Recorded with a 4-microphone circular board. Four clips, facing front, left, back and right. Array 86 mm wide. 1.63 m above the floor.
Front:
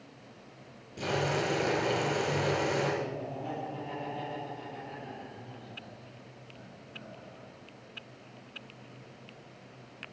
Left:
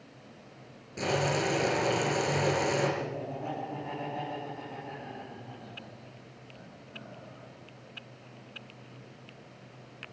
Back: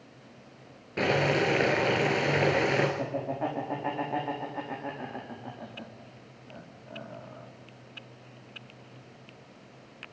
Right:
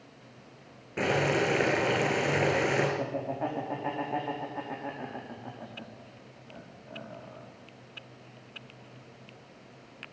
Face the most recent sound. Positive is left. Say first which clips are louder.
# right 4 dB, back 5 dB
turn(degrees=-145)